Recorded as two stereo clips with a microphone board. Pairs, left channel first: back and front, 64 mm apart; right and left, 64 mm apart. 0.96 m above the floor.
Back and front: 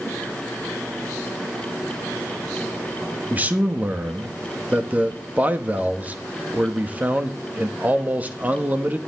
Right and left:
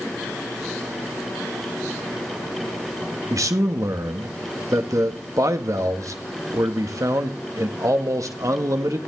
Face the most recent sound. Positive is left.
turn(degrees=65)